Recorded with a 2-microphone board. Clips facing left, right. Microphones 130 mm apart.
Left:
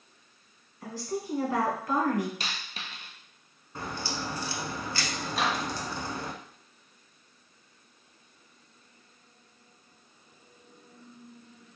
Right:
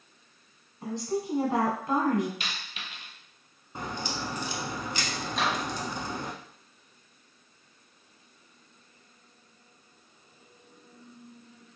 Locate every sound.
0.8 s a woman speaking: 25° right (ahead or behind), 1.3 m
2.4 s a dropped coin: 40° left (ahead or behind), 0.7 m
3.8 s a crack: 20° right (ahead or behind), 0.6 m
5.3 s a microwave: 5° left (ahead or behind), 0.8 m